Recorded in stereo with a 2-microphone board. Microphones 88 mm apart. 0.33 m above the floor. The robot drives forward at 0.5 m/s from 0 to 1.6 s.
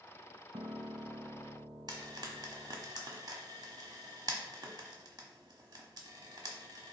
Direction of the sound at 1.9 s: 50° right (ahead or behind).